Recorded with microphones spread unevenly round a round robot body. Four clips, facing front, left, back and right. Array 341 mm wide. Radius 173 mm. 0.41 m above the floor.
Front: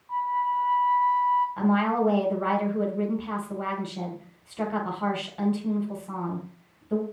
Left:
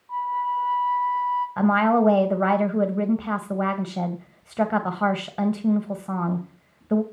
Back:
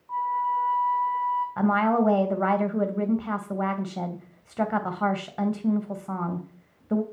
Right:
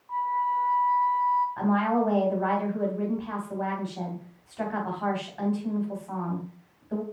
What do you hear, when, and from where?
0.1 s a flute: straight behind, 2 m
1.6 s a woman speaking: 115° left, 3 m